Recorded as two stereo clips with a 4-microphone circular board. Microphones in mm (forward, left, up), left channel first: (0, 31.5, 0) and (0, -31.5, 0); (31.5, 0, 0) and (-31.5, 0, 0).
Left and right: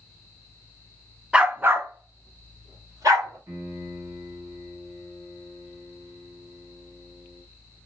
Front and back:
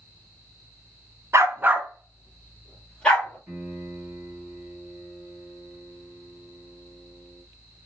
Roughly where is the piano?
Behind right.